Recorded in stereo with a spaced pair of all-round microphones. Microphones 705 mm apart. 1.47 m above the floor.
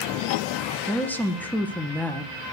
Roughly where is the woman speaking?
Centre.